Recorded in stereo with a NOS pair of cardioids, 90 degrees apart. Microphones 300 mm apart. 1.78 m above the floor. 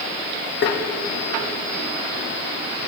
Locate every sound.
0.6 s tapping: 40° left, 0.9 m